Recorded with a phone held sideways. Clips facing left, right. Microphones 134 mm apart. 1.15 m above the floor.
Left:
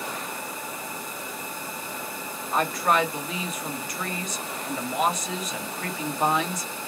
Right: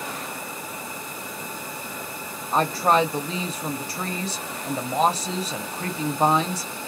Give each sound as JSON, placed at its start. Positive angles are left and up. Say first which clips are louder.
{"t": 2.5, "sound": "a woman speaking", "louder": "right 3 dB", "side_deg": -30, "distance_m": 0.8}